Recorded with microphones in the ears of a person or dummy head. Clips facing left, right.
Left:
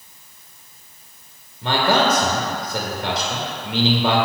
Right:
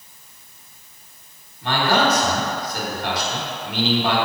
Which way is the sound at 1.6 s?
65° left (ahead or behind).